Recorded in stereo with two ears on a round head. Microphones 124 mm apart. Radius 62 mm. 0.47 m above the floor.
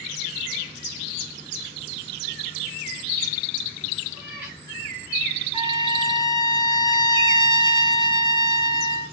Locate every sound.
4.1 s a cat meowing: 5° right (ahead or behind), 6 m
5.5 s a trumpet: 40° right (ahead or behind), 2.5 m